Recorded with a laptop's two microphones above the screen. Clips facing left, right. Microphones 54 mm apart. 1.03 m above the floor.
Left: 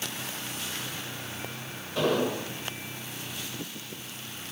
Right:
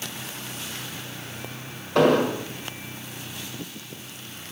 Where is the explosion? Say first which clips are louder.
Right 7 dB; 65° right (ahead or behind), 1.1 m.